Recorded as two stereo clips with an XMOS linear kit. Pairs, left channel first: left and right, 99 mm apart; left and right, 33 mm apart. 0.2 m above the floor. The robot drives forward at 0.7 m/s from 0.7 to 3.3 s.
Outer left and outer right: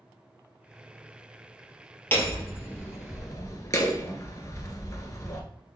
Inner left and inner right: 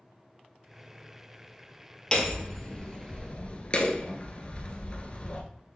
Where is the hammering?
20° left (ahead or behind), 2 m; by 5.4 s 35° left (ahead or behind), 1.3 m.